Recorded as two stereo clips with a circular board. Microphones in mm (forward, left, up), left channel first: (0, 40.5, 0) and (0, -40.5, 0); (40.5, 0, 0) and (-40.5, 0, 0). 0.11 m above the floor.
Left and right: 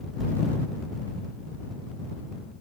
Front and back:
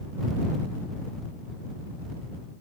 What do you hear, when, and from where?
Only background noise.